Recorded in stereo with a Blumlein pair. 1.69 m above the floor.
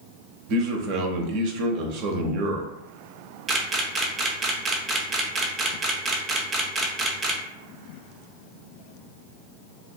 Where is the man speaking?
45° right, 0.6 m.